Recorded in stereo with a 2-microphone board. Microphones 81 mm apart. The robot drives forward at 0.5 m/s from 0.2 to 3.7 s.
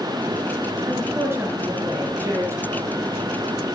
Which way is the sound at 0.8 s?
30° right (ahead or behind).